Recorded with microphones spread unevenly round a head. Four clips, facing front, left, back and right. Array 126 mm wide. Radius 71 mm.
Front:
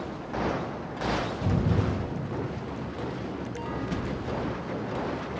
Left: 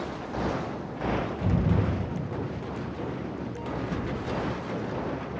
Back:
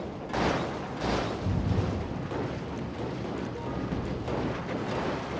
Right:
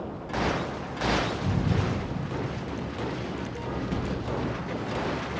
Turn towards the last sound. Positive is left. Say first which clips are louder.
# left 1 dB, front 3 dB
turn(degrees=40)